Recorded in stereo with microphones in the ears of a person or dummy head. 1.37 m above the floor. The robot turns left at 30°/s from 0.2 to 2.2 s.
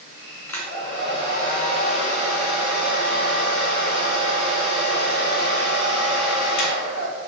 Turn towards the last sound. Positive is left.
turn(degrees=120)